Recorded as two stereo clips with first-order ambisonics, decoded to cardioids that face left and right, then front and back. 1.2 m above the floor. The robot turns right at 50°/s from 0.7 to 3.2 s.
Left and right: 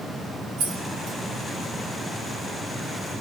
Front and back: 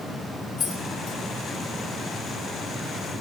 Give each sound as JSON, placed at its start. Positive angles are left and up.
{"t": 0.6, "sound": "keys jangling", "azimuth_deg": -55, "distance_m": 3.0}